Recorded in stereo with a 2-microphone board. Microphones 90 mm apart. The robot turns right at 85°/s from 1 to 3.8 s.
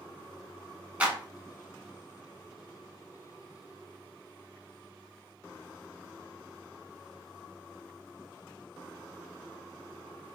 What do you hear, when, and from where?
1.0 s a clap: 15° right (ahead or behind), 0.9 m